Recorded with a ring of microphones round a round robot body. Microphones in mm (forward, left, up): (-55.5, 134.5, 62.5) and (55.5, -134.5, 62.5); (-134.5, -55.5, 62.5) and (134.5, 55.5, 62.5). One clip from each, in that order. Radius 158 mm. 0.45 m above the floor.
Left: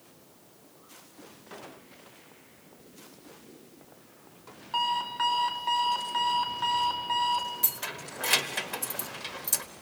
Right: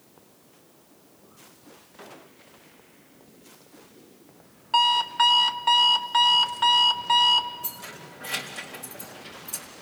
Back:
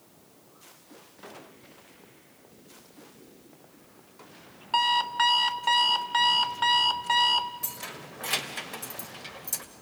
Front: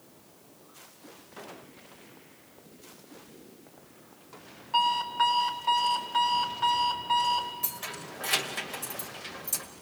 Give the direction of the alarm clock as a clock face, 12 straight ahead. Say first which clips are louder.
Right 8 dB, back 2 dB; 4 o'clock.